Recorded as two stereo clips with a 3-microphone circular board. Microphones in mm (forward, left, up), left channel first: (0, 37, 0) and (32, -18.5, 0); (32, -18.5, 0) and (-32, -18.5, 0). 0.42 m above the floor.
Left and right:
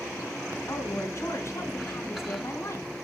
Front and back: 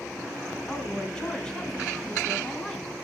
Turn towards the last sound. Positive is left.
turn(degrees=80)